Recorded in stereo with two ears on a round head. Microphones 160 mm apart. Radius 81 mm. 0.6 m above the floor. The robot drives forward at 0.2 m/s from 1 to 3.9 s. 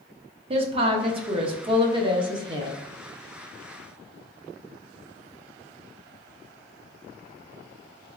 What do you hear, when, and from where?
0.5 s a woman speaking: 30° right (ahead or behind), 0.6 m; by 2.8 s 25° right (ahead or behind), 0.8 m